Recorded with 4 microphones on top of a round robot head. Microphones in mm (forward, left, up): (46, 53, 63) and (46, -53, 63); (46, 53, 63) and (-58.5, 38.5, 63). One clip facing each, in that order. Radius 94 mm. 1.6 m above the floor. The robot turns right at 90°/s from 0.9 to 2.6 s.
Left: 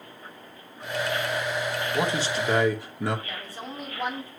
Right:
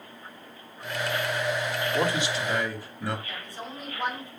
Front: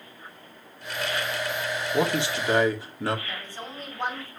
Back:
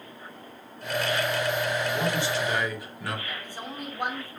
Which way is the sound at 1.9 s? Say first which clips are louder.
Left 1 dB, front 2 dB; 10° left.